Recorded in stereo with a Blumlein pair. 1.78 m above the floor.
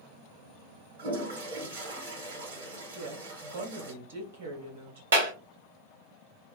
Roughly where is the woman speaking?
Ahead right.